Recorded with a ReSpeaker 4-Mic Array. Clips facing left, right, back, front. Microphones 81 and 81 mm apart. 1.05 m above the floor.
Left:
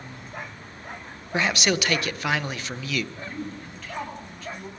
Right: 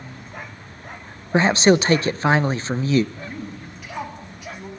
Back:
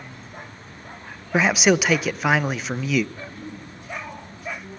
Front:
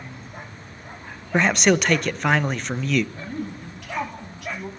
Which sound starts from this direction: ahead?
A woman speaking, at 3.1 s.